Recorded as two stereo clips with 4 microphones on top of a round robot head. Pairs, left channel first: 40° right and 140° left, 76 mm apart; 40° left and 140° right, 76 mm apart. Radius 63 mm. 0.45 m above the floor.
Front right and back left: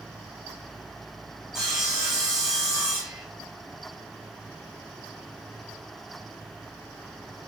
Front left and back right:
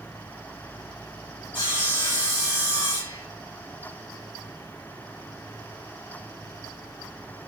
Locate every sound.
1.5 s sawing: 55° left, 4.5 m